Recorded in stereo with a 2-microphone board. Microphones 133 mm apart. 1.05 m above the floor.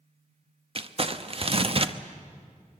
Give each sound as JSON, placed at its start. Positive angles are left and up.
{"t": 0.8, "sound": "crumpling", "side_deg": -45, "distance_m": 0.9}